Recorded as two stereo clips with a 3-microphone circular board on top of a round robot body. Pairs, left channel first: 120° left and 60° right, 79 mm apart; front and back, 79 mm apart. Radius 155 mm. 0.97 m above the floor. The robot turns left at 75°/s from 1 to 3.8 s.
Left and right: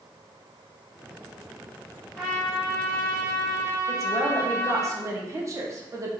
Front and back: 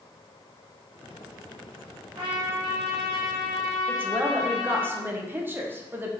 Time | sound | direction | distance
2.1 | a trumpet | 170° right | 2 m
3.9 | a woman speaking | 115° right | 0.9 m